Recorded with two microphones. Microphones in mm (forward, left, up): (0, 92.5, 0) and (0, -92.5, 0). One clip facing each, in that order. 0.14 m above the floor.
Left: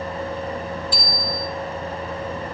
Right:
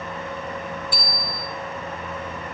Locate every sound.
0.9 s a bicycle bell: 60° right (ahead or behind), 3.5 m